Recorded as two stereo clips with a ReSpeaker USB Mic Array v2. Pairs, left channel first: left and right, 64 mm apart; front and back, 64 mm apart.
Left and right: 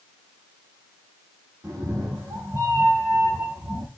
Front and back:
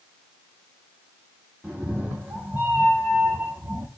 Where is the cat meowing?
115° right, 3 m; by 3.9 s 140° right, 1.7 m.